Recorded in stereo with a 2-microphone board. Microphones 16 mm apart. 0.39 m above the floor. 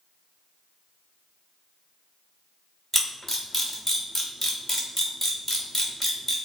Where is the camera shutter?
10° left (ahead or behind), 1.3 m.